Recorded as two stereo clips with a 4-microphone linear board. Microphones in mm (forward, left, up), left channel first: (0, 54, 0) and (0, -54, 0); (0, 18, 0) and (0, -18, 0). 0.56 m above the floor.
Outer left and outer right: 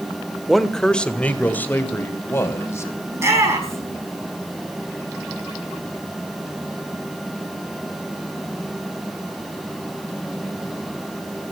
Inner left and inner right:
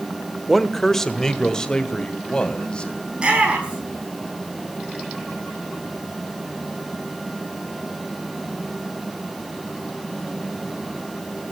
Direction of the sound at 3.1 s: 25° right (ahead or behind).